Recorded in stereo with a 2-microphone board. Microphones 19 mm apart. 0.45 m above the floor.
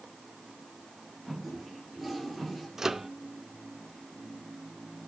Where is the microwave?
25° right (ahead or behind), 0.5 m.